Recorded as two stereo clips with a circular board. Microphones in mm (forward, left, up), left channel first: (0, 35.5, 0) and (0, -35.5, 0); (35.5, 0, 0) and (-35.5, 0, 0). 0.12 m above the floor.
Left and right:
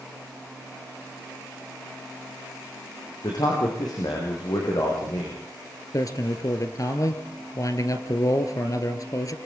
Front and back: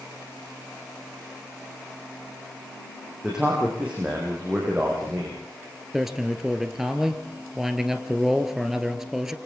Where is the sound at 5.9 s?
100° left, 2 m.